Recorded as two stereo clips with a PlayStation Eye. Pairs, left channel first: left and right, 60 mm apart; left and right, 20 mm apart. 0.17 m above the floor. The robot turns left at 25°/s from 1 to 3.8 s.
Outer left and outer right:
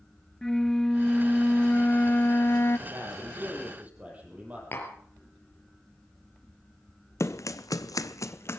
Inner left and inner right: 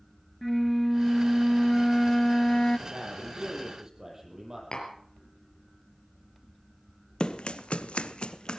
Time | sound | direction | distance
0.4 | a flute | 170° left | 0.5 m
2.9 | a man speaking | 45° right (ahead or behind) | 6.5 m
4.7 | tapping | 40° left (ahead or behind) | 3 m
7.2 | running footsteps | 50° left (ahead or behind) | 0.8 m